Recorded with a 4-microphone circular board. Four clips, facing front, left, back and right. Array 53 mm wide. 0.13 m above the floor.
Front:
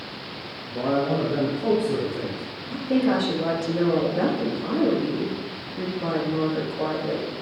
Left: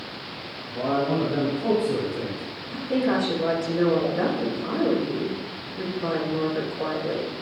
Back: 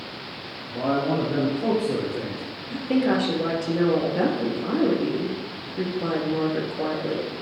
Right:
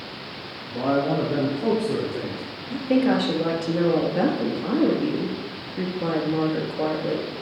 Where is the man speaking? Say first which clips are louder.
Right 1 dB, even; 130° right, 2.5 m; by 2.4 s 155° right, 4.5 m.